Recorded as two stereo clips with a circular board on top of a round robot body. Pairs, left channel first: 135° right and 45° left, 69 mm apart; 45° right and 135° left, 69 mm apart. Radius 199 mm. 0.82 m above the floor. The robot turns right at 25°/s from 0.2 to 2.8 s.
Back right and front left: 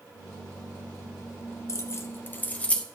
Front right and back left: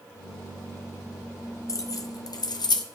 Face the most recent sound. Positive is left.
turn(degrees=-60)